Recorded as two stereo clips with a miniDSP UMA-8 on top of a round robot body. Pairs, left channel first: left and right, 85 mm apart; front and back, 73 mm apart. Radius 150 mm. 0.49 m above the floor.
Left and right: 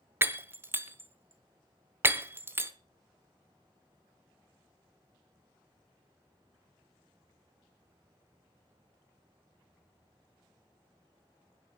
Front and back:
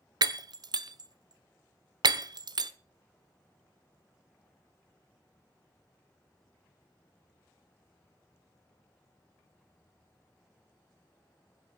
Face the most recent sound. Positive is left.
turn(degrees=-155)